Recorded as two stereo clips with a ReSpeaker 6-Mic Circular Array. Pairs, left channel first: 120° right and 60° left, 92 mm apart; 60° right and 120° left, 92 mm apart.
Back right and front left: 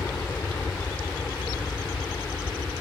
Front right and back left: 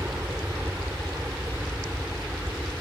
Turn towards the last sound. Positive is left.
turn(degrees=-175)